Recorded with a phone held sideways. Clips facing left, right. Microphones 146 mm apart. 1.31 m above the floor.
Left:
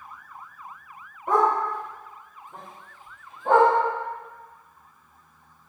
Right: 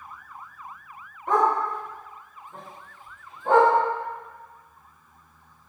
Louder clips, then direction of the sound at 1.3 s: Even; 10° left (ahead or behind).